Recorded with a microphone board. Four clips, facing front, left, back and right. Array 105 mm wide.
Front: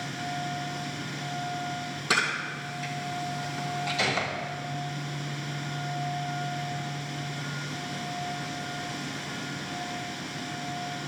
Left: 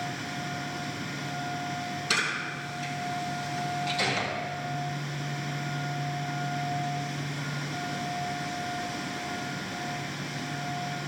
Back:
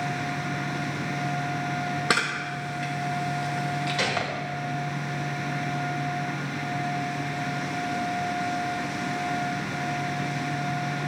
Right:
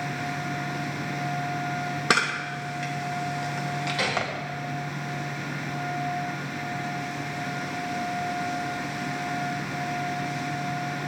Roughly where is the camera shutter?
Behind right.